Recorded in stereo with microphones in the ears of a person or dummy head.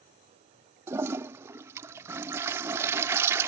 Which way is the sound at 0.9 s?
15° right (ahead or behind).